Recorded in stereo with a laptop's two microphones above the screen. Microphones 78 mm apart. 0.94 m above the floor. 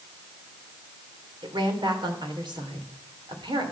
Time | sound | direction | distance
1.4 | a woman speaking | 80° right | 3 m